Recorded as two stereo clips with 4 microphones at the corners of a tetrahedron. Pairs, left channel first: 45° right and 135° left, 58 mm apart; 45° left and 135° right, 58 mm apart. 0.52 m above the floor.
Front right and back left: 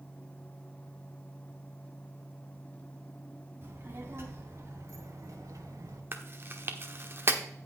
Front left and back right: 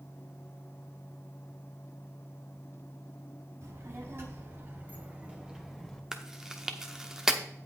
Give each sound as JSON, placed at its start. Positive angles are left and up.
{"t": 3.6, "sound": "a child speaking", "azimuth_deg": -175, "distance_m": 3.5}
{"t": 6.1, "sound": "chewing", "azimuth_deg": 145, "distance_m": 0.9}